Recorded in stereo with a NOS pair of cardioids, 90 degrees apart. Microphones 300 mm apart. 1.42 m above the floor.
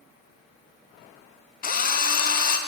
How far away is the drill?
About 0.6 m.